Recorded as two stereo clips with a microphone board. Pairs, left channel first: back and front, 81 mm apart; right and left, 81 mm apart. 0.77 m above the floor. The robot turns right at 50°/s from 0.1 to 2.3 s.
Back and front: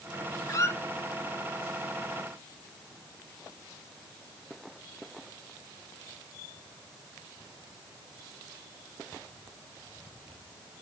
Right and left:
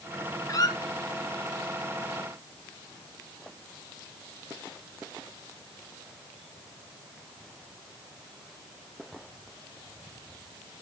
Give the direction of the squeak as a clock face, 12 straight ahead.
5 o'clock.